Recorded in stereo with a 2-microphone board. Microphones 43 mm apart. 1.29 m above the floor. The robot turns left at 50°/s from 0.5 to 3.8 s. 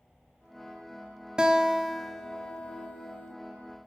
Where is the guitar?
155° right, 0.6 m; by 3.4 s 105° left, 0.6 m.